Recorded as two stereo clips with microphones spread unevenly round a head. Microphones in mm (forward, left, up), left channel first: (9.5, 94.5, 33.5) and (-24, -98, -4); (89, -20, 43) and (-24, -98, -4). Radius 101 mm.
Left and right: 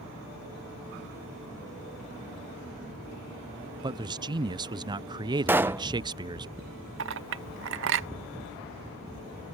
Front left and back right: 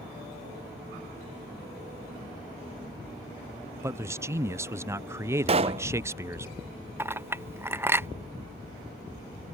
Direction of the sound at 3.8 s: 135° right.